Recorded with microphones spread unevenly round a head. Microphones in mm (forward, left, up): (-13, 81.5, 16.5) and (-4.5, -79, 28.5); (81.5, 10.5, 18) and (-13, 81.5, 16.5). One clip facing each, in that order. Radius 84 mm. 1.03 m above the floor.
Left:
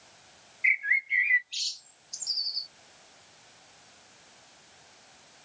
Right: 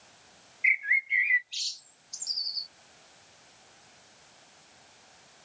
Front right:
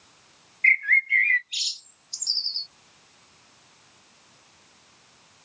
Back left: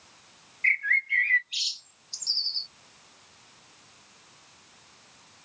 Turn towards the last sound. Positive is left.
turn(degrees=0)